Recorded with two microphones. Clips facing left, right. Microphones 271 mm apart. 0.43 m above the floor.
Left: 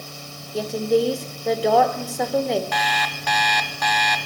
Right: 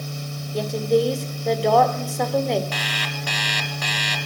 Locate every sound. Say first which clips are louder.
0.5 s a woman speaking: even; 5° left (ahead or behind), 1.5 m
2.7 s an alarm clock: left 2 dB; 35° right (ahead or behind), 1.2 m